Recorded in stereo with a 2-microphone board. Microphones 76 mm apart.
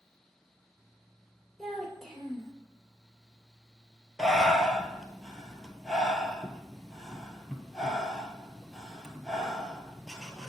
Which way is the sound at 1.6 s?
5° left (ahead or behind).